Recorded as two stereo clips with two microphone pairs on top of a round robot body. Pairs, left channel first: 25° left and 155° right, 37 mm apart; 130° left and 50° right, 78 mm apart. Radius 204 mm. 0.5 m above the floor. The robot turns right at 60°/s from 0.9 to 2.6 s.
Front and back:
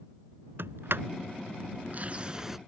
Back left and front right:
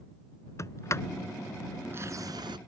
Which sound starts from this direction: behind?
A sliding door, at 0.6 s.